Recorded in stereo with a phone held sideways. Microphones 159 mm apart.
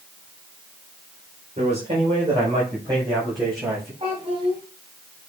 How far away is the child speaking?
About 4.5 m.